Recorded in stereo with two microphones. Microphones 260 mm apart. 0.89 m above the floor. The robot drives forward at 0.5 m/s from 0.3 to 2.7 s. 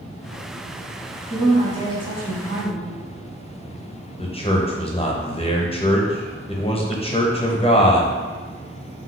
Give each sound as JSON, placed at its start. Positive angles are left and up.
{"t": 1.3, "sound": "a woman speaking", "side_deg": -25, "distance_m": 1.7}
{"t": 4.2, "sound": "a man speaking", "side_deg": 25, "distance_m": 0.5}